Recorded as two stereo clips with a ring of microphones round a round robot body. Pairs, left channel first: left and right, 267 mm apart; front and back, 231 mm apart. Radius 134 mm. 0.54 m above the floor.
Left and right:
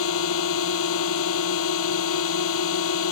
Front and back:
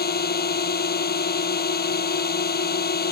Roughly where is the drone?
Ahead left.